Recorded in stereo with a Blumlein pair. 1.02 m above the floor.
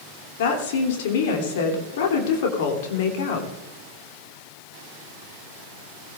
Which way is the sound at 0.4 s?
55° left.